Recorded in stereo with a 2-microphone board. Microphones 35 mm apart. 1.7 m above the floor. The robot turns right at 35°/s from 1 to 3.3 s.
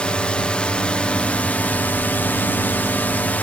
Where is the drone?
35° left; by 3.4 s 115° left.